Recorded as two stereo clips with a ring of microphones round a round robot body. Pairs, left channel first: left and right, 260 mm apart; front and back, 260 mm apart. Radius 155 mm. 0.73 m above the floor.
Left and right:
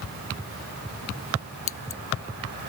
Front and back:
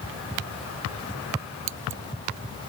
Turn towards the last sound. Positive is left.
turn(degrees=130)